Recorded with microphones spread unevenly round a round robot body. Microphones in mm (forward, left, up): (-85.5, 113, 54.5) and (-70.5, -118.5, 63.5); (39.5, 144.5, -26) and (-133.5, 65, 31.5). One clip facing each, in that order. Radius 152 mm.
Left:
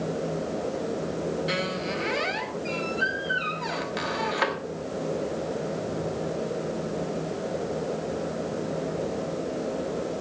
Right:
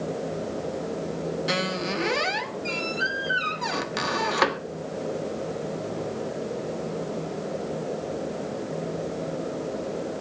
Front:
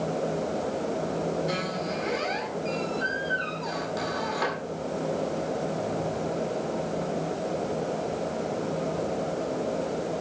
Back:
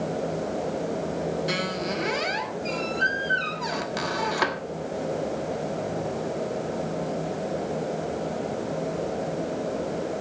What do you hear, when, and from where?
1.5 s a squeak: 120° right, 1.4 m